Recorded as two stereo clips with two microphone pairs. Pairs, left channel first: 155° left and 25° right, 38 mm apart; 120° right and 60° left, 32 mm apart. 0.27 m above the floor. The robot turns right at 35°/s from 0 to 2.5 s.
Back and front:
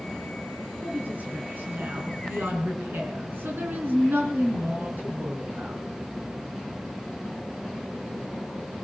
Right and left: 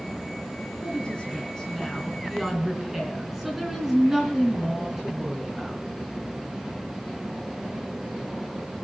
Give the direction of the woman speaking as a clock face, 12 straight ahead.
3 o'clock.